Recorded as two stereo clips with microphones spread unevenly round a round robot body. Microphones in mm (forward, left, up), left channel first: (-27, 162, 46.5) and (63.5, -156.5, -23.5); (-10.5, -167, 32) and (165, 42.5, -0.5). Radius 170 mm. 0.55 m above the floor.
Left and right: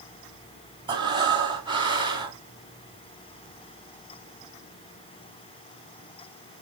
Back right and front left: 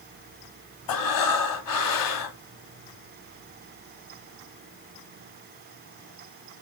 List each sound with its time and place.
0.9 s breathing: 155° right, 1.4 m